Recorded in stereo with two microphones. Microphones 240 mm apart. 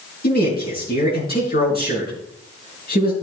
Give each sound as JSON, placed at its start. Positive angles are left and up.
{"t": 0.2, "sound": "a man speaking", "side_deg": 40, "distance_m": 5.0}